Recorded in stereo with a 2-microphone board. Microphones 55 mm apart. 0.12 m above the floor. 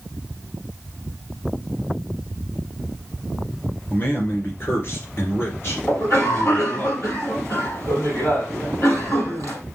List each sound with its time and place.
3.9 s a man speaking: 40° left (ahead or behind), 2 m; by 6.9 s 50° left (ahead or behind), 3 m
5.9 s a cough: 65° left (ahead or behind), 4.5 m